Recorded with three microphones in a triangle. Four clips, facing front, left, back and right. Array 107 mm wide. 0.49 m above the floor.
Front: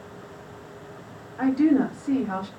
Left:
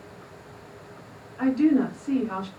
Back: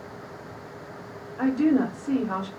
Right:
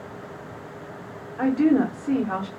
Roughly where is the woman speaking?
Right.